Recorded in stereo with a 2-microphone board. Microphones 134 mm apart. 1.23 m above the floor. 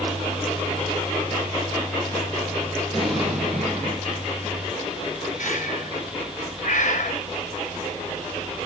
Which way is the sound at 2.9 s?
Centre (ahead or behind).